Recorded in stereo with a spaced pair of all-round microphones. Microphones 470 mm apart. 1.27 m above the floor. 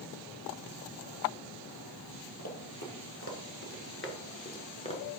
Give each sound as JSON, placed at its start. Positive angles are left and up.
{"t": 2.4, "sound": "running footsteps", "side_deg": 35, "distance_m": 2.0}